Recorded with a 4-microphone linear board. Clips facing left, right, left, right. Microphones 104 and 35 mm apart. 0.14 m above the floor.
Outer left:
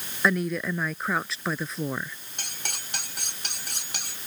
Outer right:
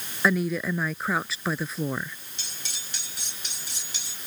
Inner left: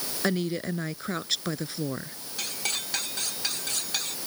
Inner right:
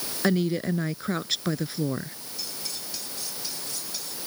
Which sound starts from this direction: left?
Cutlery clinking, at 2.4 s.